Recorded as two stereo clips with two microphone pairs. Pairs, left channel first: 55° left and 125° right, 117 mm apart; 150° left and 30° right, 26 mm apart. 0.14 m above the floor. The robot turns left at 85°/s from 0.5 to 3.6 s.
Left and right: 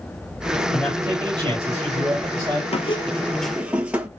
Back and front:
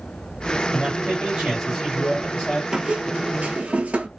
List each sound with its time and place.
0.7 s a man speaking: 40° right, 2.5 m; by 2.6 s 160° left, 2.5 m
2.7 s a squeak: 30° left, 0.6 m; by 4.1 s 45° right, 0.6 m